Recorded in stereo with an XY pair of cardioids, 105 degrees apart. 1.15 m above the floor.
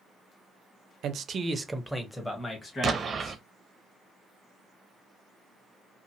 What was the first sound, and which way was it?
A man speaking, 70° right.